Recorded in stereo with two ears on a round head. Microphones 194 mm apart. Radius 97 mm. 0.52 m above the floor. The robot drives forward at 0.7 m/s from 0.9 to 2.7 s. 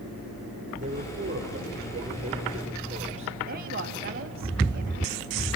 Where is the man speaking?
35° right (ahead or behind), 10 m; by 3.4 s 30° right (ahead or behind), 11 m.